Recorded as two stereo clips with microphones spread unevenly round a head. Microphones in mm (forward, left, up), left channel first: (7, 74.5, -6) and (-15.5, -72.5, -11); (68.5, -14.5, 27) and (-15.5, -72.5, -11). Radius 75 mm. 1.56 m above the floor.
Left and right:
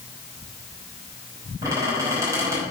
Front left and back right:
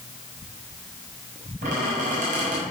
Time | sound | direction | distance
1.6 | a squeak | 170° right | 5.5 m